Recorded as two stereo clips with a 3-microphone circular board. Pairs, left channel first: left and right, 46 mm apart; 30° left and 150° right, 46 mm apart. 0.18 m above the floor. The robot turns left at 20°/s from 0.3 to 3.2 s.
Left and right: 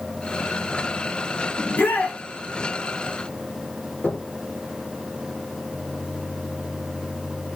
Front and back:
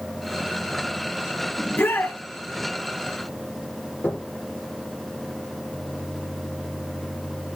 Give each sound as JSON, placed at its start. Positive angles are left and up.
{"t": 1.6, "sound": "a shout", "azimuth_deg": 65, "distance_m": 4.0}
{"t": 4.0, "sound": "knocking", "azimuth_deg": 40, "distance_m": 3.0}